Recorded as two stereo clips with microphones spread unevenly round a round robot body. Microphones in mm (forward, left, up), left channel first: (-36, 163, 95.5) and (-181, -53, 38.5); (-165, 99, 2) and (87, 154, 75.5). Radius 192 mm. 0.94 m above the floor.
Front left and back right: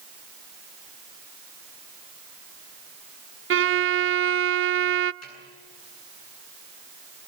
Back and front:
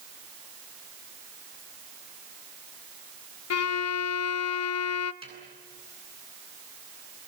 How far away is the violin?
About 0.7 m.